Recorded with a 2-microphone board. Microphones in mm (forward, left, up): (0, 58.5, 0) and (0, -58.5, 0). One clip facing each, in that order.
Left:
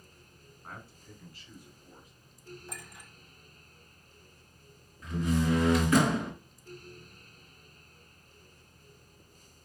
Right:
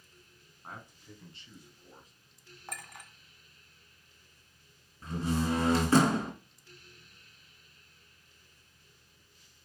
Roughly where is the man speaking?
Centre.